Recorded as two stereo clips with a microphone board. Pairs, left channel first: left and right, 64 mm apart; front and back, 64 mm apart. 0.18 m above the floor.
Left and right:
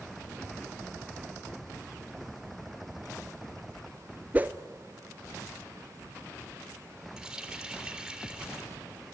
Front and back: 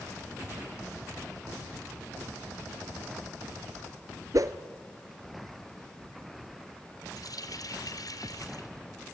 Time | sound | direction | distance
4.3 | a whoosh | 155° right | 1.0 m
7.2 | a running tap | 10° right | 2.5 m